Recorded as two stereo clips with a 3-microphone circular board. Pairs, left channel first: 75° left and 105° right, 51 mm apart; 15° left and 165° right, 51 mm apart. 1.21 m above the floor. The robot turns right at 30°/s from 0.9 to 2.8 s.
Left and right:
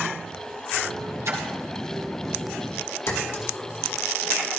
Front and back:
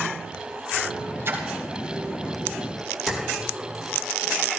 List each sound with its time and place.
1.2 s a splash: 125° right, 4 m; by 1.5 s 115° right, 4 m
3.1 s a clink: 105° left, 2.5 m